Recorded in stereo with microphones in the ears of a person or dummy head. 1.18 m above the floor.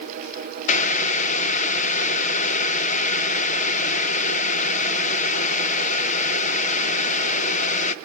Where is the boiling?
45° left (ahead or behind), 0.6 m.